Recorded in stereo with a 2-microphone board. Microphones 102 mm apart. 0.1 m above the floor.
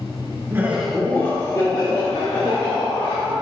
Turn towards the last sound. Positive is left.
turn(degrees=60)  # may be behind; listen again after turning